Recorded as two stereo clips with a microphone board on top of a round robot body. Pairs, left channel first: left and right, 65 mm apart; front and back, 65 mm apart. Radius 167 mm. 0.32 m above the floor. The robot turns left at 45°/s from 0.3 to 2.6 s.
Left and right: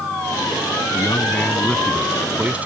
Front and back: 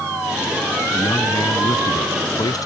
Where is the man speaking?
50° left; by 2.7 s 25° right.